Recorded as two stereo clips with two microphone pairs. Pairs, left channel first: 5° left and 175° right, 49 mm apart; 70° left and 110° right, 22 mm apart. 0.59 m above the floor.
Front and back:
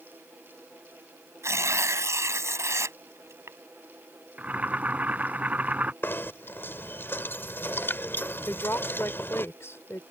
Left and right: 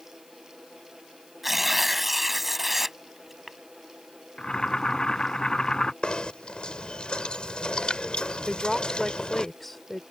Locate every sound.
1.4 s tearing paper: 175° left
4.4 s boiling: 125° left
6.0 s knocking: 40° left
8.5 s a woman speaking: 10° right